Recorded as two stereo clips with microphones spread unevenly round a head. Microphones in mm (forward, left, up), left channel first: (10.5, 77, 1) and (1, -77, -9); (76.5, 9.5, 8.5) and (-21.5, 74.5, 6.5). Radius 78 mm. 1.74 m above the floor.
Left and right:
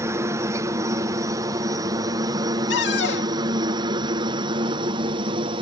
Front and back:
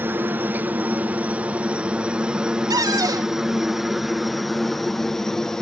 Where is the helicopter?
150° right; by 5.6 s 115° right.